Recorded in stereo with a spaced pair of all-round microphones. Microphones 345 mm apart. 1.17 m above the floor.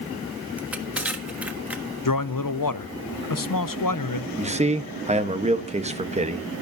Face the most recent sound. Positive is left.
turn(degrees=-20)  # may be behind; listen again after turning